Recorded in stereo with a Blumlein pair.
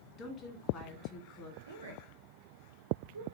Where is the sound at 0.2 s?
20° left, 1.9 m.